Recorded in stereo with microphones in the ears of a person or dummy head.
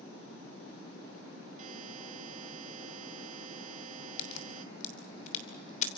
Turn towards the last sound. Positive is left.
turn(degrees=45)  # may be behind; listen again after turning